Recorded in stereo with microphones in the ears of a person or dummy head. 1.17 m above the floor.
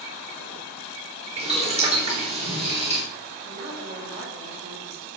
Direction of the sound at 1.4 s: 30° right (ahead or behind).